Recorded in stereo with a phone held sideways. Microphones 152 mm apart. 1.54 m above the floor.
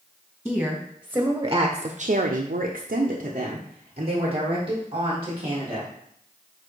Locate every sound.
0.5 s a woman speaking: 5° right (ahead or behind), 1.3 m; by 5.9 s 30° right (ahead or behind), 2.5 m